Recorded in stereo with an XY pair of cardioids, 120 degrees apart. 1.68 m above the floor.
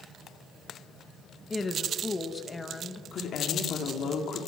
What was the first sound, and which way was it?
A woman speaking, 20° left.